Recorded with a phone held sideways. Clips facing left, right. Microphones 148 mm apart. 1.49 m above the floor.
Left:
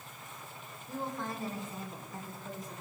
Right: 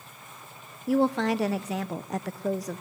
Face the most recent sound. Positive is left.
turn(degrees=-80)